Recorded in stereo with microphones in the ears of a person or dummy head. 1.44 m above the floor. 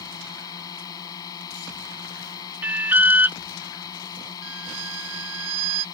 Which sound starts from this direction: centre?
An alarm, at 2.6 s.